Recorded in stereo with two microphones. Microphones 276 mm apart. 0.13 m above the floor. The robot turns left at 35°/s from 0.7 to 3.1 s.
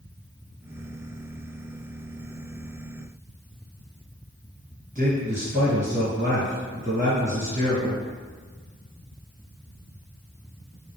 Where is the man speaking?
30° right (ahead or behind), 1.9 m.